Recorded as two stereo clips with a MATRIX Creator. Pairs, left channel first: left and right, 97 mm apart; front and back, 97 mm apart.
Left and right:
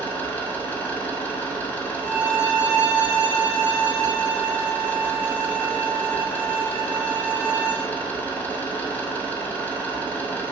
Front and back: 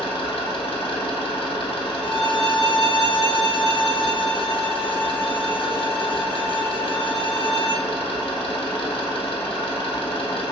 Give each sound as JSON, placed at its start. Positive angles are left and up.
{"t": 0.0, "sound": "an engine running", "azimuth_deg": 20, "distance_m": 1.1}
{"t": 2.0, "sound": "a violin", "azimuth_deg": 165, "distance_m": 1.6}